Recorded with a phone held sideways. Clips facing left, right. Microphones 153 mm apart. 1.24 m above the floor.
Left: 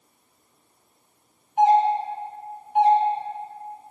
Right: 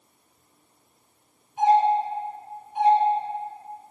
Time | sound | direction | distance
1.6 | a doorbell | 65° left (ahead or behind) | 3 m